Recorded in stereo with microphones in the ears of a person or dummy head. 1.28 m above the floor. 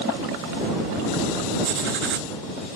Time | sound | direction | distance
1.6 | writing | 55° right (ahead or behind) | ?